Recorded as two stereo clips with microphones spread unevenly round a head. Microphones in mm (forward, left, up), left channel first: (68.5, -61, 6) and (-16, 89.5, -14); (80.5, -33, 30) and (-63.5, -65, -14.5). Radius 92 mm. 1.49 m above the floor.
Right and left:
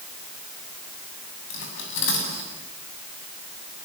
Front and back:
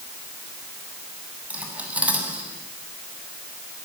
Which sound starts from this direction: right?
Cutlery clinking, at 1.5 s.